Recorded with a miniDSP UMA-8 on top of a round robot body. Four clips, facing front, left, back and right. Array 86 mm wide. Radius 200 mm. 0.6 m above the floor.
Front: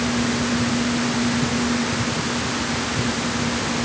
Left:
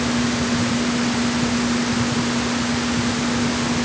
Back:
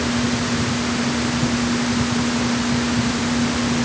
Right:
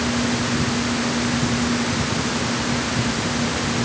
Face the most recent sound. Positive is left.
No sound to turn to.